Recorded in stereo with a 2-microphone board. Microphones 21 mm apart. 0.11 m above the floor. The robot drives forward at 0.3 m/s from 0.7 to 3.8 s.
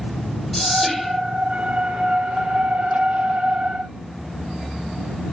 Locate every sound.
0.5 s whispering: 10° left (ahead or behind), 2.5 m